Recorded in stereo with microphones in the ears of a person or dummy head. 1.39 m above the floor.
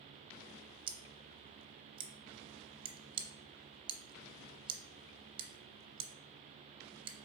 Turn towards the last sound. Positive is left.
turn(degrees=-25)  # may be behind; listen again after turning